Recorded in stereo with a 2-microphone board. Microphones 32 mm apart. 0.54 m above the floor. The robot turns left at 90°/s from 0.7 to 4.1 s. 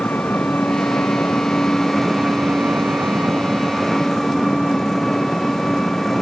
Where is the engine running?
115° left; by 6.2 s 170° left.